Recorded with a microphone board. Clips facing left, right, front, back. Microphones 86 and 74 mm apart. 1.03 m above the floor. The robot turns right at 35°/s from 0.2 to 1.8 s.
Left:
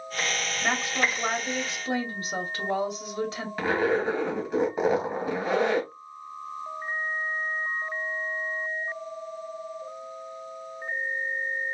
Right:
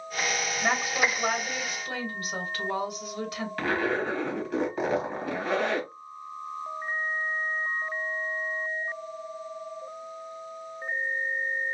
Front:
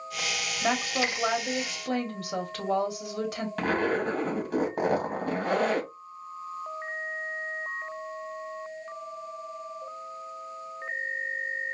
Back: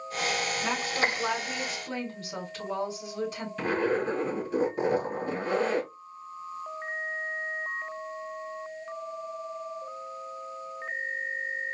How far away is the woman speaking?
About 2 m.